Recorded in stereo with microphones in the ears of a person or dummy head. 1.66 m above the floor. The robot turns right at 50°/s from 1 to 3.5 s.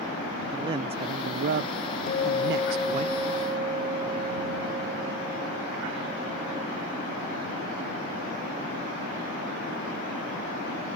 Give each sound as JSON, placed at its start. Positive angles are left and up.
{"t": 0.5, "sound": "a man speaking", "azimuth_deg": -145}
{"t": 2.1, "sound": "a guitar", "azimuth_deg": 140}